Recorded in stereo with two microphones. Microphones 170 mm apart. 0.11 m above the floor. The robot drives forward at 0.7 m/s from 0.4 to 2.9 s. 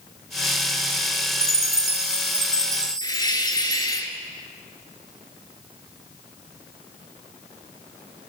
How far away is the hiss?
About 0.9 m.